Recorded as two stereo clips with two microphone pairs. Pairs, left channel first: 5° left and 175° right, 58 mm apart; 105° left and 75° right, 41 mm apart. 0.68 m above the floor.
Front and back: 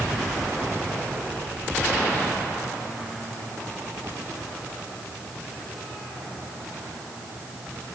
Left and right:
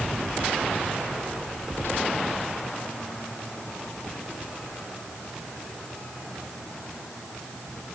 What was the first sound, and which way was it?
Only background noise.